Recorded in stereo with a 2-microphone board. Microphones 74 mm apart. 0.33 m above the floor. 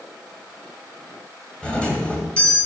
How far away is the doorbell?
About 2 m.